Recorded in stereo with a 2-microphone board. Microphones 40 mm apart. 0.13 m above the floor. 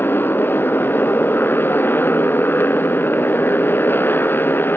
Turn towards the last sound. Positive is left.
turn(degrees=65)  # may be behind; listen again after turning